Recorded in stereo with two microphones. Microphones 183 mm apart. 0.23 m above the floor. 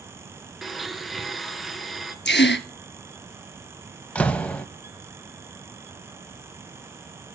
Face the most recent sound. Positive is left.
turn(degrees=10)  # may be behind; listen again after turning